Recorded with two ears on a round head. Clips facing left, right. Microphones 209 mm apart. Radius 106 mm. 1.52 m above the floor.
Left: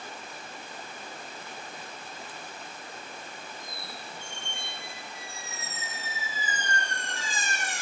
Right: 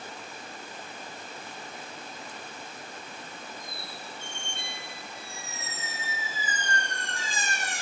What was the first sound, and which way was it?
A squeak, 75° right (ahead or behind).